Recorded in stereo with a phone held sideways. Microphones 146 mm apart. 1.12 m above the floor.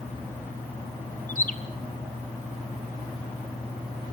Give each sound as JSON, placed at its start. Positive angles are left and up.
{"t": 1.3, "sound": "a bird", "side_deg": 55, "distance_m": 1.1}